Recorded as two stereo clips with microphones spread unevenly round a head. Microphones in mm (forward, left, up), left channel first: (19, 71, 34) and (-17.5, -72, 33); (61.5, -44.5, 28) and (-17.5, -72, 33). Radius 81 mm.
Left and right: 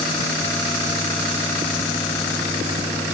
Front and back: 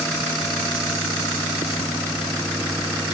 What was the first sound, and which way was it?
Only background noise.